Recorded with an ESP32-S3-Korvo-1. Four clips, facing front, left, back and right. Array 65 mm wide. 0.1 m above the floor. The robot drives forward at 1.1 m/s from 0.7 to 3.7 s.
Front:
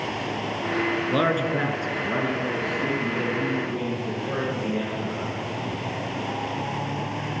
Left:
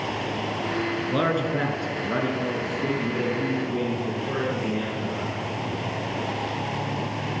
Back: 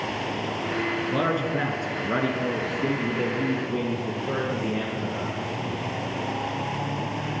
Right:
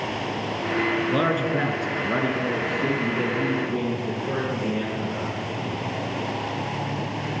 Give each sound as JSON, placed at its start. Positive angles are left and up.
{"t": 1.1, "sound": "a man speaking", "azimuth_deg": -10, "distance_m": 1.2}